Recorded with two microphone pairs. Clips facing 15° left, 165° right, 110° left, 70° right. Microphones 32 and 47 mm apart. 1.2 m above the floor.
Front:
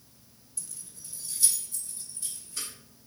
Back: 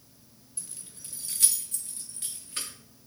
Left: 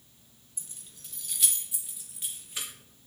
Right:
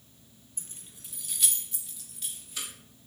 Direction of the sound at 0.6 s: 105° right.